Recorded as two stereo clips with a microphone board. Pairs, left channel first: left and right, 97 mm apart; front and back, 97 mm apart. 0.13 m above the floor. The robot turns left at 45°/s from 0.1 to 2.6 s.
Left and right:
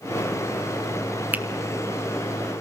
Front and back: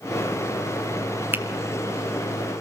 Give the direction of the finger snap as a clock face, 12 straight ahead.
5 o'clock.